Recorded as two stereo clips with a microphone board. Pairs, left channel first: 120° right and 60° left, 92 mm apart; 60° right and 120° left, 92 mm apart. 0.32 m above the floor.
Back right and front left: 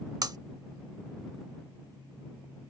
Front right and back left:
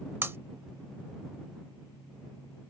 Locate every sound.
0.2 s breaking glass: 65° left